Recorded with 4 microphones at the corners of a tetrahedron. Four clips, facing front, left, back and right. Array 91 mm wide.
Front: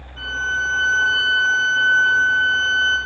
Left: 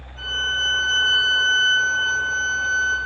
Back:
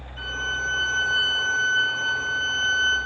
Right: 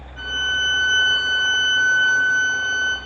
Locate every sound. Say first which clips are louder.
0.2 s a violin: right 2 dB, front 6 dB; 45° right, 4 m